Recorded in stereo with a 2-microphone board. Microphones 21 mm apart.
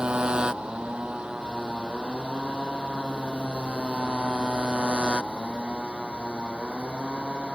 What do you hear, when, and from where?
0.0 s a motorcycle: 65° right (ahead or behind); by 7.6 s 75° right (ahead or behind)